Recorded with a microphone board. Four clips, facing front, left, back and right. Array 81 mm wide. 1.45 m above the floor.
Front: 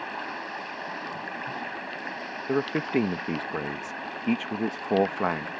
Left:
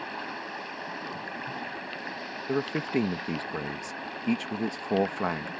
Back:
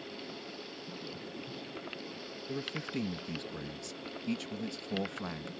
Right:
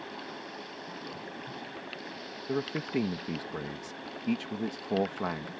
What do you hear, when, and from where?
0.0 s running water: 25° left
2.5 s a man speaking: 15° left